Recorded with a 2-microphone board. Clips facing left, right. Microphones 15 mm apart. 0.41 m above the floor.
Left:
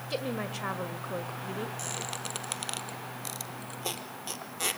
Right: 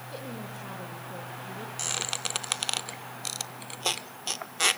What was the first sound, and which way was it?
A woman speaking, 55° left (ahead or behind).